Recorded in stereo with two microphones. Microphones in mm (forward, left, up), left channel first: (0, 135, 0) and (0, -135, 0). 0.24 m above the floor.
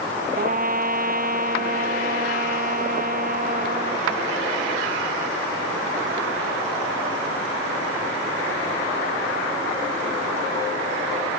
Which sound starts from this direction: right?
A trumpet, at 0.4 s.